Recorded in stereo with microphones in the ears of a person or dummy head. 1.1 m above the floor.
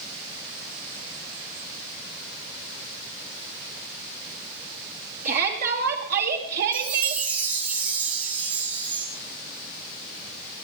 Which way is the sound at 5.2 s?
50° right (ahead or behind).